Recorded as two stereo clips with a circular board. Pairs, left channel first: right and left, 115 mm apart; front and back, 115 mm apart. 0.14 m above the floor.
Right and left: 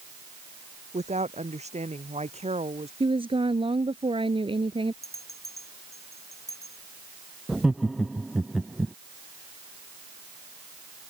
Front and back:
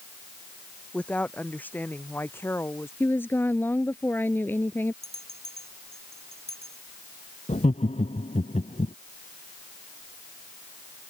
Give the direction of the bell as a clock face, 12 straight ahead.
7 o'clock.